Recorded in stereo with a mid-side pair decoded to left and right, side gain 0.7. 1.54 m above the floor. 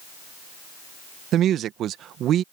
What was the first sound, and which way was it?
A woman speaking, 45° right.